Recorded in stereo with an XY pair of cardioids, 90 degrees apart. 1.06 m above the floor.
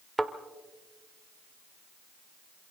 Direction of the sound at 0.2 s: 10° right.